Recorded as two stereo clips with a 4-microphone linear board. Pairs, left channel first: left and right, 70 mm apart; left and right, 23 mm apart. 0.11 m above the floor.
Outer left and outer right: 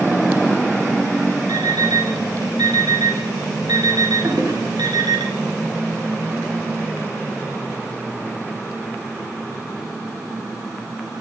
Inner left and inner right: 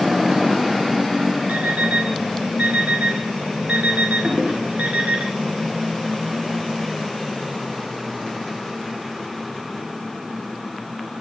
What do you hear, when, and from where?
1.5 s an alarm clock: 70° right (ahead or behind), 8.5 m
4.2 s a toilet flushing: 50° right (ahead or behind), 6.5 m